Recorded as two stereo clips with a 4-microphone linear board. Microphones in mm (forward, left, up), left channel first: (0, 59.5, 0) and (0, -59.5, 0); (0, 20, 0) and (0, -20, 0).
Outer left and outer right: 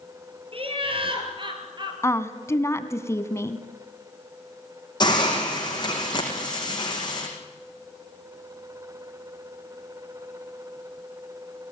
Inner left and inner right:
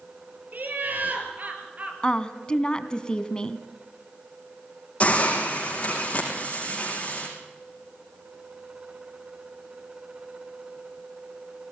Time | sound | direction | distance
0.5 | laughter | 50° right (ahead or behind) | 4 m
2.0 | a woman speaking | 25° left (ahead or behind) | 1.0 m
5.0 | a hiss | 40° left (ahead or behind) | 5 m